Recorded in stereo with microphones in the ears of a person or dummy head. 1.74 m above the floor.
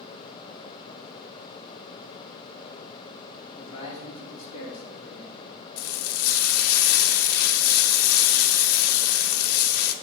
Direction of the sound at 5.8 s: 80° left.